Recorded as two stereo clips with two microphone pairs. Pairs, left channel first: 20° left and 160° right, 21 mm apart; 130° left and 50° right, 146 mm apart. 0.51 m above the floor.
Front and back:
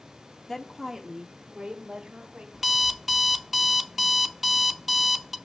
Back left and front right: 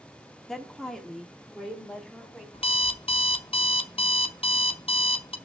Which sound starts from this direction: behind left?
An alarm clock, at 2.5 s.